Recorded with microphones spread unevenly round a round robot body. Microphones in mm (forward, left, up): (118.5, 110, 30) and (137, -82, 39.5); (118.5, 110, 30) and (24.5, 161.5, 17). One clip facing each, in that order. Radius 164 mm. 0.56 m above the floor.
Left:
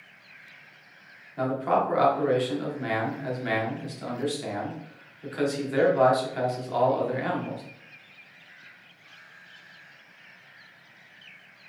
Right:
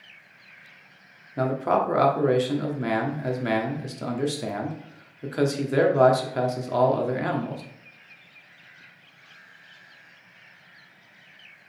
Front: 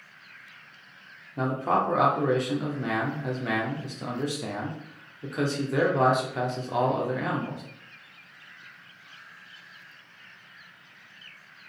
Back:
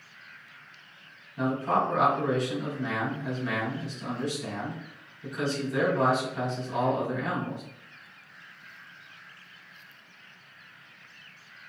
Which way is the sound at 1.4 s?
60° right.